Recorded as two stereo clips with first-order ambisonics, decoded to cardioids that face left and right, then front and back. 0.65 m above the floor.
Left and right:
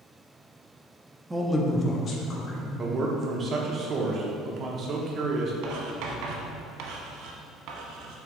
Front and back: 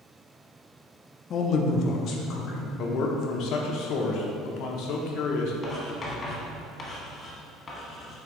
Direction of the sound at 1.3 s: 20° right.